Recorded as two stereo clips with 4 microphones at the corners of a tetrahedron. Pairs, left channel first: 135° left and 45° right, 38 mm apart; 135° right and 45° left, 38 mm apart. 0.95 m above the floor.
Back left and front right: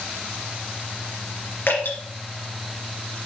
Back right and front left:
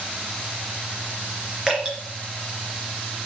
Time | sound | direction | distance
1.7 | dripping | 115° left | 3.5 m